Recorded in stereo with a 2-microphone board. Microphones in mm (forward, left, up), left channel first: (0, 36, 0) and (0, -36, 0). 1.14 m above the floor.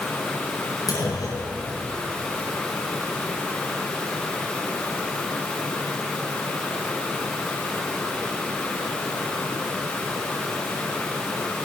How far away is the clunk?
About 7 m.